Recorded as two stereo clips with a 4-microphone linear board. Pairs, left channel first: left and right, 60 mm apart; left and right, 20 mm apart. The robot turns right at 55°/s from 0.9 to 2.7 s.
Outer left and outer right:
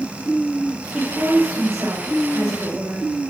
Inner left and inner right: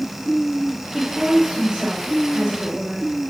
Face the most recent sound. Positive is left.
turn(degrees=-65)